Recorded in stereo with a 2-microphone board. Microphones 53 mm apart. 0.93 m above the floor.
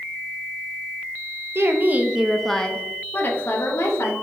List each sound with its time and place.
1.6 s a woman speaking: 50° right (ahead or behind), 0.6 m; by 4.1 s 50° left (ahead or behind), 1.1 m